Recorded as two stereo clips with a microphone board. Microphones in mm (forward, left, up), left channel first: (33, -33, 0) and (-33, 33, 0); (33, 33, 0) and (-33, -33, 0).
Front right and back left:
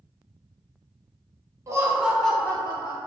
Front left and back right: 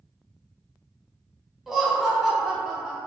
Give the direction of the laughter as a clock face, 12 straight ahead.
7 o'clock.